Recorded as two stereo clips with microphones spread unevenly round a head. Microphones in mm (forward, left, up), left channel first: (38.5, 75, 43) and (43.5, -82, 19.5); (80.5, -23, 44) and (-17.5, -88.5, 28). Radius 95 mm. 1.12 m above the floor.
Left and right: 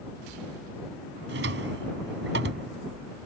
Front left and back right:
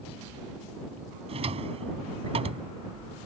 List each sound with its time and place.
1.3 s a drawer: 115° right